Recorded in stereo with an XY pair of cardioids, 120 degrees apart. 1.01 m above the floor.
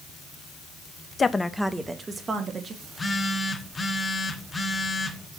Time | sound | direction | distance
1.2 | a woman speaking | 30° left | 0.5 m
2.8 | a phone buzzing | 20° left | 1.0 m